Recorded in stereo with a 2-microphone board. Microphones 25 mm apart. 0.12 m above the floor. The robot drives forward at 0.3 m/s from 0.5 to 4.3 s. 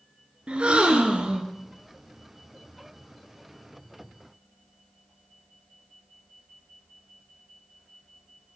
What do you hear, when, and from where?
0.5 s a gasp: 45° right (ahead or behind), 0.6 m